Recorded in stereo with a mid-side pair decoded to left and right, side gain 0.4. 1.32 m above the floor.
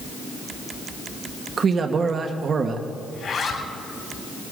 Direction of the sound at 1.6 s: 55° right.